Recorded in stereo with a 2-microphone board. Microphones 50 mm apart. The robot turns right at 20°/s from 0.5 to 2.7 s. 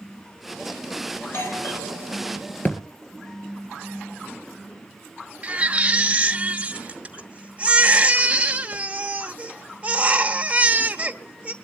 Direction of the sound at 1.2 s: 55° left (ahead or behind).